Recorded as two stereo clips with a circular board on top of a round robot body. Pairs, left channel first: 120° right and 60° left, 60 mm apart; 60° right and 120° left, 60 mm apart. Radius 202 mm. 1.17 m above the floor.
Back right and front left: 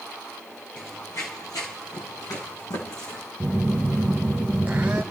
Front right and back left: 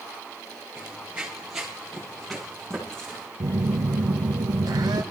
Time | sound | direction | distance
0.8 | running footsteps | 165° left | 1.4 m
3.4 | a phone buzzing | 125° left | 0.6 m